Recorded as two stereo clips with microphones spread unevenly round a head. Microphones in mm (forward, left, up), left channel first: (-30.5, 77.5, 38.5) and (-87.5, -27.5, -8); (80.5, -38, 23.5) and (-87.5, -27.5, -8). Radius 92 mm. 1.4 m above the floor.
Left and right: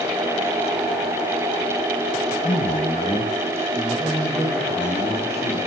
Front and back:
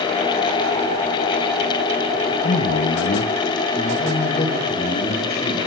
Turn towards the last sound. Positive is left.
turn(degrees=-30)